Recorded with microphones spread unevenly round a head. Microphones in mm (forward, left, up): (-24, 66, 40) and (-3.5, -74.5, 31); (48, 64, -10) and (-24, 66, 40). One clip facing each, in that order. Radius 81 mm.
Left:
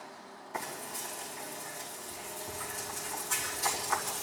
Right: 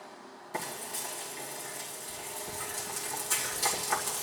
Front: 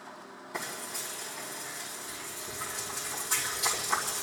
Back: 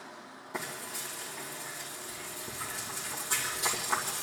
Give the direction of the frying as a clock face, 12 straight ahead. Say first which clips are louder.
Right 1 dB, even; 5 o'clock.